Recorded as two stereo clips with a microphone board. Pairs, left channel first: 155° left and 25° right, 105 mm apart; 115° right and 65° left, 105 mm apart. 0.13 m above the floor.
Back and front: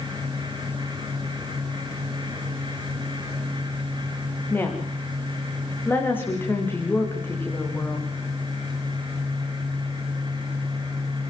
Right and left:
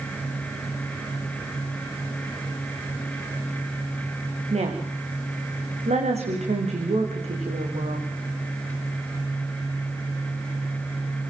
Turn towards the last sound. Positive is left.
turn(degrees=85)